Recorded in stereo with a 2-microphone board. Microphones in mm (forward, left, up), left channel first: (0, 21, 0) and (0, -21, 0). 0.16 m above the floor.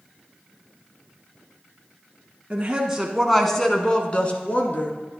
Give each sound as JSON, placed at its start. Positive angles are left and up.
{"t": 2.5, "sound": "a woman speaking", "side_deg": -25, "distance_m": 1.2}